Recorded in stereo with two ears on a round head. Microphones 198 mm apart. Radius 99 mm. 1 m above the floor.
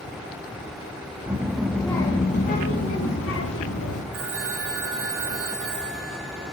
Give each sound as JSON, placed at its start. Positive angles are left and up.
{"t": 1.3, "sound": "a child speaking", "side_deg": -10, "distance_m": 1.2}
{"t": 4.1, "sound": "a phone ringing", "side_deg": -65, "distance_m": 3.0}